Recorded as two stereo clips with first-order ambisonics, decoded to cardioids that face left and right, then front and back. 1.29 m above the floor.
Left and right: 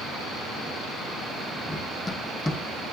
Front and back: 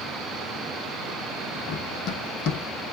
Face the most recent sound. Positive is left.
turn(degrees=15)